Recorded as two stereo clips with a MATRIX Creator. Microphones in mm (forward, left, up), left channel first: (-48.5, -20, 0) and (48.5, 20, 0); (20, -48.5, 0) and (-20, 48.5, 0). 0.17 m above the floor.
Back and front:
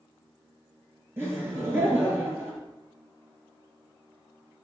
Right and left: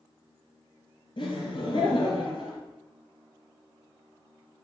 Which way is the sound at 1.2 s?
40° right.